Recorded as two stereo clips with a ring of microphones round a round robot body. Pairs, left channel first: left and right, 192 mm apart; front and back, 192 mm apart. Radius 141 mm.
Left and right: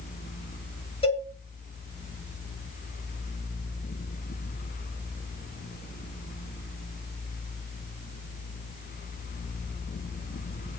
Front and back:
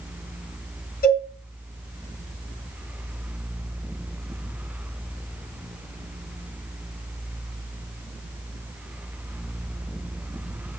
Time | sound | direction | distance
1.0 | a cowbell | 35° left | 5.5 m